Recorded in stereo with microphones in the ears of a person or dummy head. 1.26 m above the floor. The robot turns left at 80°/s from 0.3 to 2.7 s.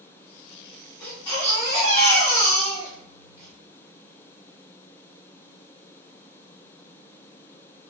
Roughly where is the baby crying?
Behind.